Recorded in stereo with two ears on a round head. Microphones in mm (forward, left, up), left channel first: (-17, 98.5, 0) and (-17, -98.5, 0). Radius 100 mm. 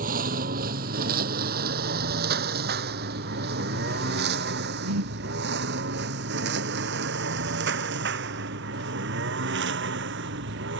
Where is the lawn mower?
40° right (ahead or behind); by 10.8 s 55° right (ahead or behind).